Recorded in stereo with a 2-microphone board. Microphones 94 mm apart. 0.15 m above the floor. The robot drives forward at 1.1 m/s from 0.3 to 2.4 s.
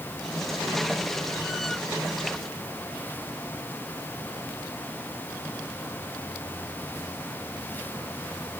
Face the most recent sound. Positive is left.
No sound to turn to.